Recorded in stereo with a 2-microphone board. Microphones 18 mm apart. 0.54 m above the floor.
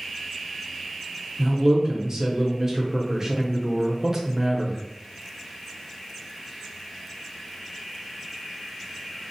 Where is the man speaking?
35° right (ahead or behind), 0.8 m.